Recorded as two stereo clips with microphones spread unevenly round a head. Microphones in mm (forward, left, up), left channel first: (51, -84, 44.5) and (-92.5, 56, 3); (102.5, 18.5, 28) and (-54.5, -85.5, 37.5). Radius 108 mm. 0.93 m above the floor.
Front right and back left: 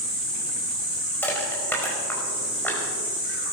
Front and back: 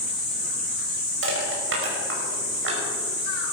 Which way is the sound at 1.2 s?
125° right.